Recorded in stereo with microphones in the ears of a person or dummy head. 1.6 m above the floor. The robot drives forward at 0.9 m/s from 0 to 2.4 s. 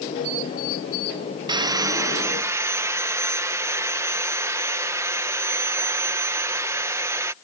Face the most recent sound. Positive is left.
turn(degrees=-15)  # may be behind; listen again after turning